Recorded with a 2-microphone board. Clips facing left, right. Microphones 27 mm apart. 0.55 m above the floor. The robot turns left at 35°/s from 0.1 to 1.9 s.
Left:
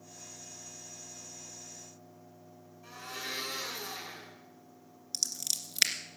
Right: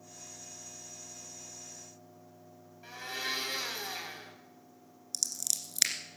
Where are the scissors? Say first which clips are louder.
Left 1 dB; 20° left (ahead or behind), 2.0 m.